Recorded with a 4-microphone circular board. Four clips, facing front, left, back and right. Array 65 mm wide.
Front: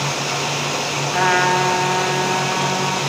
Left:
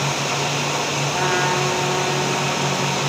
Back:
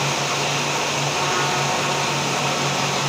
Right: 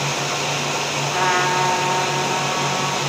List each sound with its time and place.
1.1 s a trumpet: 5° right, 4 m